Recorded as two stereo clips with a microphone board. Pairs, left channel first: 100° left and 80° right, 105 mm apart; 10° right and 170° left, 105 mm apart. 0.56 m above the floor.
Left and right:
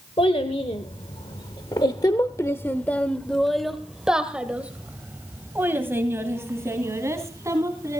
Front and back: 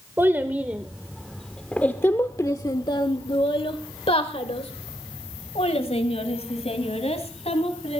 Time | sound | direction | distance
0.2 | a child speaking | 105° left | 1.4 m